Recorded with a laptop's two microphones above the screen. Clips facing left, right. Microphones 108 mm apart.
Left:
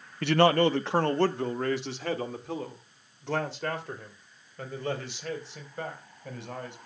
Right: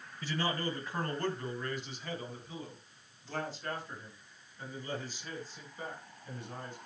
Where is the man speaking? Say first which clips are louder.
Left 14 dB; 70° left (ahead or behind), 0.7 m; by 6.8 s 85° left, 5 m.